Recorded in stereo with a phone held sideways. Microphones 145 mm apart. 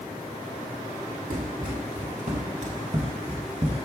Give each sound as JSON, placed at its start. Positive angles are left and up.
{"t": 1.3, "sound": "running footsteps", "side_deg": -55, "distance_m": 1.8}